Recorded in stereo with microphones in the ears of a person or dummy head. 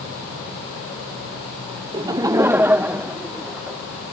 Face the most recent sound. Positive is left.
turn(degrees=-10)  # may be behind; listen again after turning